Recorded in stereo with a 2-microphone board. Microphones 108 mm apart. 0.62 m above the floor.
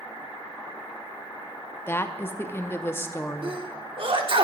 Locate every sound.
1.9 s a woman speaking: 20° left (ahead or behind), 0.7 m
3.4 s a sneeze: 55° right (ahead or behind), 1.3 m